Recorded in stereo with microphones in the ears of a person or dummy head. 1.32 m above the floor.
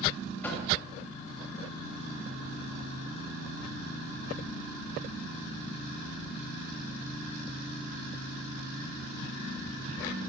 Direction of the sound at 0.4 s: 15° left (ahead or behind).